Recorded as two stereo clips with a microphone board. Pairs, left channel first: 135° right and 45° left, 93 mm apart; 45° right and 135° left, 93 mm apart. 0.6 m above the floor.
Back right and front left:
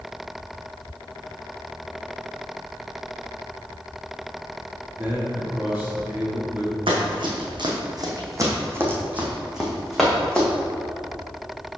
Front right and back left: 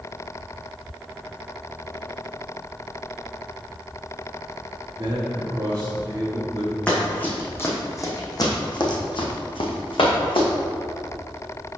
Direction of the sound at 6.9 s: 30° left.